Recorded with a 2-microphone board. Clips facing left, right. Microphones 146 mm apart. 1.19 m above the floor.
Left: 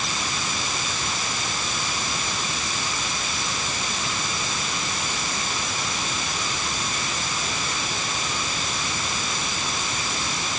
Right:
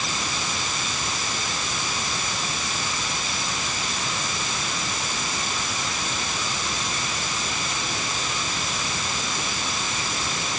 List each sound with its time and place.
Only background noise.